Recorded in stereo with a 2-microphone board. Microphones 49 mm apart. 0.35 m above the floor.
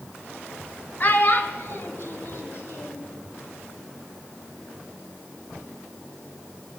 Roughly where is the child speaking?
Left.